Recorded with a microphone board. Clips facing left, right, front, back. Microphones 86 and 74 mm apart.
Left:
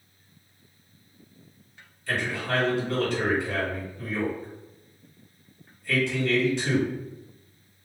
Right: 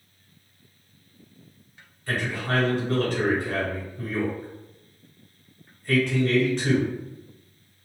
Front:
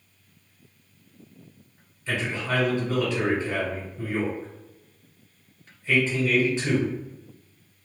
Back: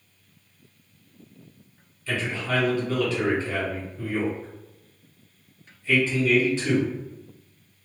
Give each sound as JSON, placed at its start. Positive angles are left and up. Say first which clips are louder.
{"t": 2.1, "sound": "a man speaking", "louder": "right 1 dB, even", "azimuth_deg": -65, "distance_m": 1.7}